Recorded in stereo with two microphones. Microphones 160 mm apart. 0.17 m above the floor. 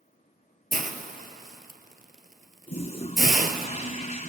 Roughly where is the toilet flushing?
Left.